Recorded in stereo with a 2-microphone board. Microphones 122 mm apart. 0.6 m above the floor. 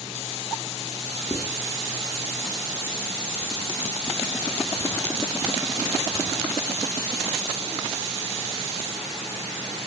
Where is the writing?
5° left (ahead or behind), 2.5 m.